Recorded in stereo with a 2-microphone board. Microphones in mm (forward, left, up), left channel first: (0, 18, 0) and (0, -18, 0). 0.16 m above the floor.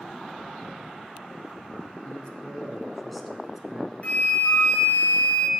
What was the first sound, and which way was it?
A man speaking, 35° left (ahead or behind).